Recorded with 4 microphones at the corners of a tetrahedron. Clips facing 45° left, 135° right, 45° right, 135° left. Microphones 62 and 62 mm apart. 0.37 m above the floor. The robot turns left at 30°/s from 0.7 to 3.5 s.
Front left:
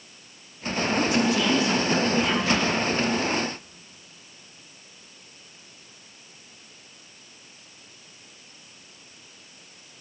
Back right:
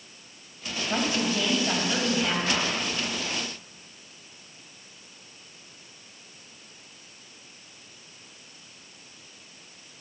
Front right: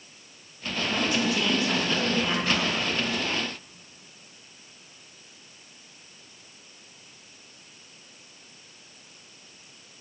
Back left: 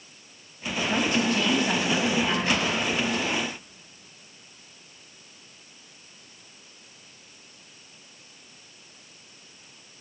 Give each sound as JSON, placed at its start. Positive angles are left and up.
{"t": 0.9, "sound": "a woman speaking", "azimuth_deg": -175, "distance_m": 2.5}
{"t": 2.5, "sound": "a whoosh", "azimuth_deg": 175, "distance_m": 3.0}